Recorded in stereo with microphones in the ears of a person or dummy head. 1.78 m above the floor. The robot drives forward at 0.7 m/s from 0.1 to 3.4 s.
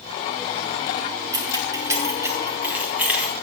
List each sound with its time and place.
1.3 s keys jangling: 15° right (ahead or behind), 0.9 m; by 3.3 s 5° right (ahead or behind), 2.0 m